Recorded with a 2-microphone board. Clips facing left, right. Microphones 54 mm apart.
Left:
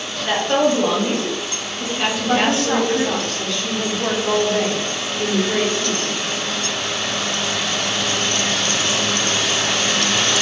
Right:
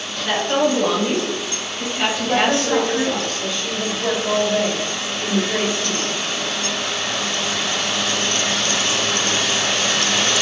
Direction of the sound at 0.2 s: 10° left (ahead or behind).